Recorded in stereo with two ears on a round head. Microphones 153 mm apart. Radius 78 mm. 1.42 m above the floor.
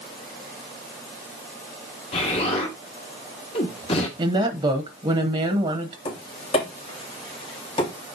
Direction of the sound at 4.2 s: 30° right (ahead or behind).